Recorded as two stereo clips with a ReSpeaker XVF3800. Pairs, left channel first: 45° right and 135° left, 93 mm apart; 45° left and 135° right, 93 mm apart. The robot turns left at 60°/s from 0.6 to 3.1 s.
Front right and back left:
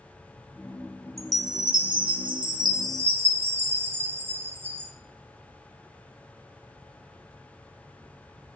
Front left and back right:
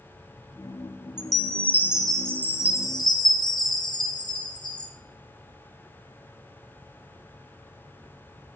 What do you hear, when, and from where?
1.2 s a chime: 170° right, 1.1 m; by 4.9 s 75° left, 1.1 m